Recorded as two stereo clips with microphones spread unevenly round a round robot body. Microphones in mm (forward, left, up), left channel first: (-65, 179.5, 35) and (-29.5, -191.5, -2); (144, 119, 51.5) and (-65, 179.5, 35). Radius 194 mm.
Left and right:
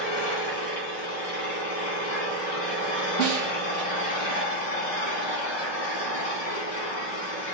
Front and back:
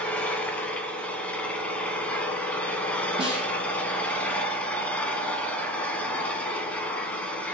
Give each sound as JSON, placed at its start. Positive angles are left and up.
{"t": 0.0, "sound": "an engine running", "azimuth_deg": 70, "distance_m": 1.2}
{"t": 3.2, "sound": "a snare drum", "azimuth_deg": 95, "distance_m": 3.0}